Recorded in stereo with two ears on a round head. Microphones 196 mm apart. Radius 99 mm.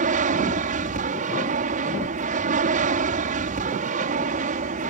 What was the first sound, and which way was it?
An aircraft, 35° right (ahead or behind).